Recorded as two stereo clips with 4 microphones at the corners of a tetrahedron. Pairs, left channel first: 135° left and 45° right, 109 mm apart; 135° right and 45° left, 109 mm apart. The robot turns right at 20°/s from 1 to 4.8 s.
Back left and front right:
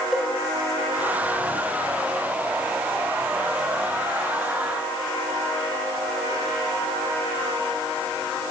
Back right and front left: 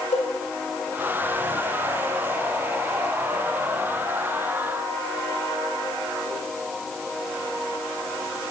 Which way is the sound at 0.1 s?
135° right.